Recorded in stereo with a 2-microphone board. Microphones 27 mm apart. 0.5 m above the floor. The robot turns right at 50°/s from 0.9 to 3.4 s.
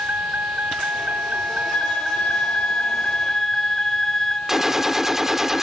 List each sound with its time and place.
0.0 s a vehicle: 90° right; by 5.6 s 35° left
1.7 s a flute: 80° left; by 4.4 s 160° left
4.5 s a gunshot: 15° right (ahead or behind)